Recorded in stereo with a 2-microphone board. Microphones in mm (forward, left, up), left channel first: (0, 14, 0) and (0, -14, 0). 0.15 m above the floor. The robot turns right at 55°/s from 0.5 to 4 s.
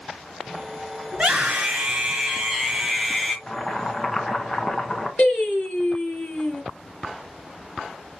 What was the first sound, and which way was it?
A scream, 115° right.